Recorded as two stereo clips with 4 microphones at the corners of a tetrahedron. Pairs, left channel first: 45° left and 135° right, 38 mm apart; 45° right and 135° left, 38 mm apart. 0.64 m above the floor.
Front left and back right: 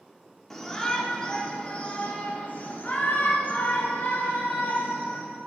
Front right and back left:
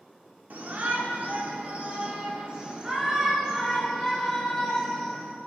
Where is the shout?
125° left, 1.9 m; by 5.2 s 40° left, 2.5 m.